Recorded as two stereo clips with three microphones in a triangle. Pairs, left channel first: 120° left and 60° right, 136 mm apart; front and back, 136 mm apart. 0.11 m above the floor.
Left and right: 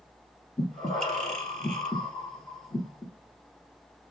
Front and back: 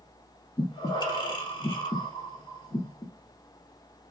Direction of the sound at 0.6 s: 35° left.